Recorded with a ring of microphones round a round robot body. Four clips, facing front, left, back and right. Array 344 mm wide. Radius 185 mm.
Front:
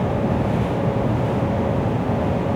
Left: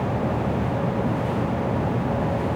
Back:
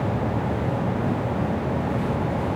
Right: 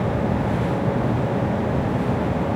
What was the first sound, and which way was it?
Only background noise.